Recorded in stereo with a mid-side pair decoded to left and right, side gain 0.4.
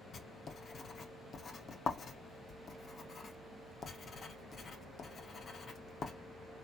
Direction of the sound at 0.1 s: 55° left.